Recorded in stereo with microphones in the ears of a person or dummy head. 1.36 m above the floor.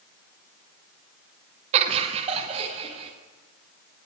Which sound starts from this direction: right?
Laughter, at 1.7 s.